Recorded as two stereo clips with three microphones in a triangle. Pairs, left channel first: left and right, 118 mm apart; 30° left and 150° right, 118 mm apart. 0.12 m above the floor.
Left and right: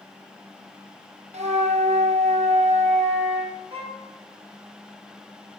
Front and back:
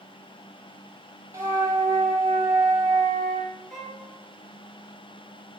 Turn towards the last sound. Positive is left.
turn(degrees=-60)